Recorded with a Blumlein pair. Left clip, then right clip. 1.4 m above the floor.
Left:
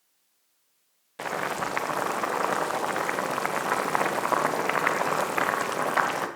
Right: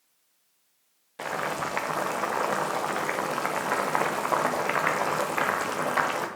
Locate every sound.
1.2 s boiling: 5° left, 0.9 m